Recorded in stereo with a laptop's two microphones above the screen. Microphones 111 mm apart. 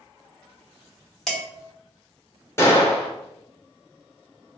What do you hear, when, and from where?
1.3 s dishes clattering: 5° left (ahead or behind), 1.6 m
2.6 s a gunshot: 25° left (ahead or behind), 1.3 m